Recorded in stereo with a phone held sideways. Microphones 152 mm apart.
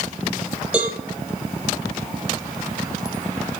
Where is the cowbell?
5° right (ahead or behind), 6.5 m.